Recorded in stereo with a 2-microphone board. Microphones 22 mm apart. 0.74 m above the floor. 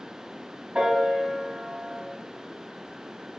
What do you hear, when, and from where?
0.8 s a piano: 75° right (ahead or behind), 3.5 m